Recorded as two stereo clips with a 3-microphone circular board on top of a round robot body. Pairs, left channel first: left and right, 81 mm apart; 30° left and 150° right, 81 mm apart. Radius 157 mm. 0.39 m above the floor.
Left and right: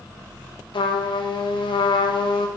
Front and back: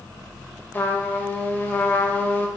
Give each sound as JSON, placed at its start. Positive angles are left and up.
{"t": 0.7, "sound": "a trumpet", "azimuth_deg": 100, "distance_m": 0.7}